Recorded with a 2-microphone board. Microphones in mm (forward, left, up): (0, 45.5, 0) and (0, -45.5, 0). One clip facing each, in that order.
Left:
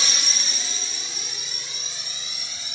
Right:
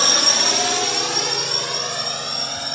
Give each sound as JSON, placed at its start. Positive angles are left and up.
{"t": 0.0, "sound": "a drone", "side_deg": -55}